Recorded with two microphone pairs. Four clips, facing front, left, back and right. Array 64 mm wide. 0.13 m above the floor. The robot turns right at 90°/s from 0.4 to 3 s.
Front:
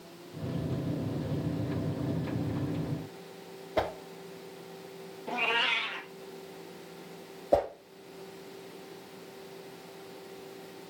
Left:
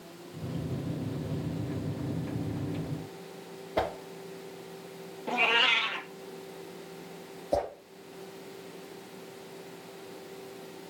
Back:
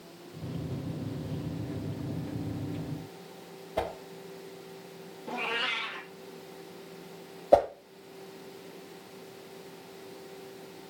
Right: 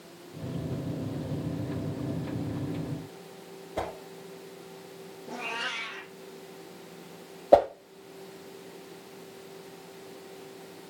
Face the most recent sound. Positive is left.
turn(degrees=-110)